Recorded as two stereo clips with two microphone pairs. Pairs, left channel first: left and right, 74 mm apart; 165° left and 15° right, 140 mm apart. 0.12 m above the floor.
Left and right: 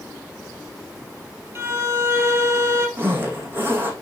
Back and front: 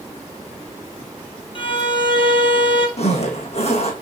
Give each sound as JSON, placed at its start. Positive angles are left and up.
{"t": 1.6, "sound": "a violin", "azimuth_deg": -145, "distance_m": 3.0}
{"t": 3.0, "sound": "a zipper", "azimuth_deg": -155, "distance_m": 2.5}